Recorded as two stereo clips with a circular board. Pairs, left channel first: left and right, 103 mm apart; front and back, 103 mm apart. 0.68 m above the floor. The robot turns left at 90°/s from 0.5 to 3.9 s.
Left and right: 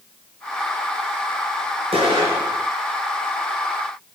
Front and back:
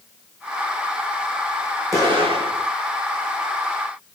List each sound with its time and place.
1.9 s an explosion: 120° right, 4.5 m; by 2.7 s 170° left, 4.5 m